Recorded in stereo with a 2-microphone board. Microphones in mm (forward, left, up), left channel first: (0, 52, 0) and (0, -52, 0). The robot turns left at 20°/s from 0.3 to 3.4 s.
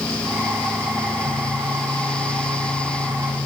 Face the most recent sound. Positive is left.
No sound to turn to.